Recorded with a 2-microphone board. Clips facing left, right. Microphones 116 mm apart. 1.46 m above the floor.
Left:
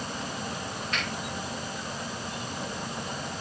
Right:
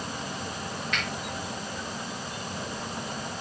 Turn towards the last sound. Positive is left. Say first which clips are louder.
# even
turn(degrees=35)  # may be behind; listen again after turning